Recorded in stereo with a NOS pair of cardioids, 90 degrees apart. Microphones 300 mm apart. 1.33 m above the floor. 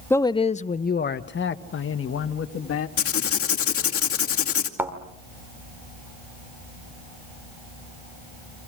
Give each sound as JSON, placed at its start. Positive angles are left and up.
{"t": 0.1, "sound": "a man speaking", "azimuth_deg": 5, "distance_m": 0.7}
{"t": 3.0, "sound": "writing", "azimuth_deg": 50, "distance_m": 2.5}
{"t": 4.8, "sound": "a thud", "azimuth_deg": -5, "distance_m": 2.0}